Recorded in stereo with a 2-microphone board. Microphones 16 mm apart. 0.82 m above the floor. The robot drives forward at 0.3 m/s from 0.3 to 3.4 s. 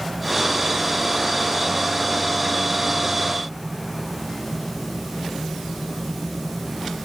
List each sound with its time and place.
Only background noise.